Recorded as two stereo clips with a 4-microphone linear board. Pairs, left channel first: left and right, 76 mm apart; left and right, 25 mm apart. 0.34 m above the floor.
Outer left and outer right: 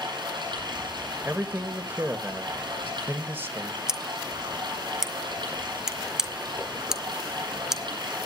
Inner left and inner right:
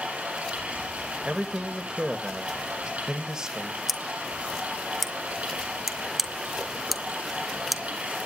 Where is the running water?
85° right, 8.5 m.